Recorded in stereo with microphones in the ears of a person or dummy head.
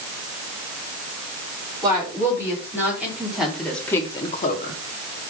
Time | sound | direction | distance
1.8 | a woman speaking | 10° right (ahead or behind) | 4.5 m